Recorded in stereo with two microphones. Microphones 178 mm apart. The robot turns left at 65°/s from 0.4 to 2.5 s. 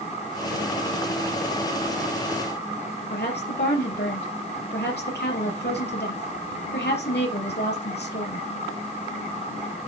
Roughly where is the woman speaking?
Left.